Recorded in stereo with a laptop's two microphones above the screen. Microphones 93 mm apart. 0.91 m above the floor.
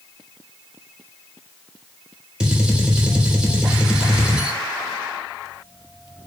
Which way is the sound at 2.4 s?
10° right (ahead or behind).